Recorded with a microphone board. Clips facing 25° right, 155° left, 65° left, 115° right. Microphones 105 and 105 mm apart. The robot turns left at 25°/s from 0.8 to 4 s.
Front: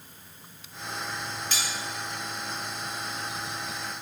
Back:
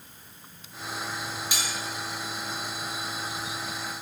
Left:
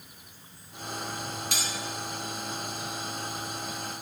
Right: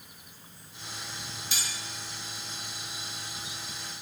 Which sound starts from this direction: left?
Cutlery clinking, at 1.5 s.